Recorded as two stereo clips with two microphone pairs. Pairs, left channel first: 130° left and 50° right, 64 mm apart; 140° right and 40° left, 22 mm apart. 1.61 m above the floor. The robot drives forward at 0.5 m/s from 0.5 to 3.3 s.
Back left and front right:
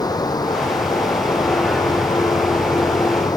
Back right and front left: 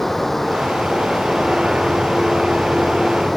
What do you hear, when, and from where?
0.0 s running water: 140° left